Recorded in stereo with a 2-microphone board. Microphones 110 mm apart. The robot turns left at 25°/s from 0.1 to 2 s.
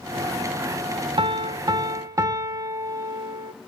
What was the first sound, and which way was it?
A piano, 50° right (ahead or behind).